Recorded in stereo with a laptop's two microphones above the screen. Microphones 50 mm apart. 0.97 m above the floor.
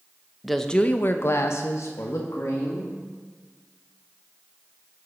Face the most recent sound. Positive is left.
turn(degrees=70)  # may be behind; listen again after turning